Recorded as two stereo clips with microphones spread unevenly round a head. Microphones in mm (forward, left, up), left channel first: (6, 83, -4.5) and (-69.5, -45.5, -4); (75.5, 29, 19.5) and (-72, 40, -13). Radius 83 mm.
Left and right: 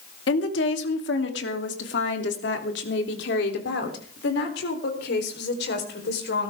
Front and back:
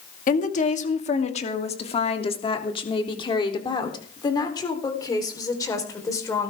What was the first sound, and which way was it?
A woman speaking, 30° left.